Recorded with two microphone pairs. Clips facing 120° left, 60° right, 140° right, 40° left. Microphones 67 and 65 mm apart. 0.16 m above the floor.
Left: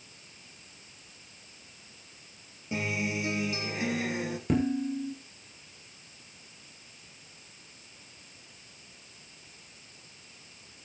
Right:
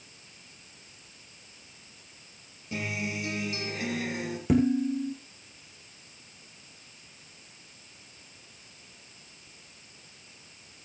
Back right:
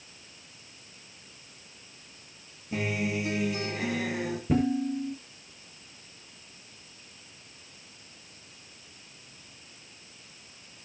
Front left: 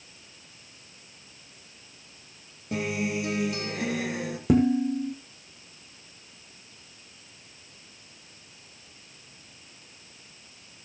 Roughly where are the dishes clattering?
Ahead left.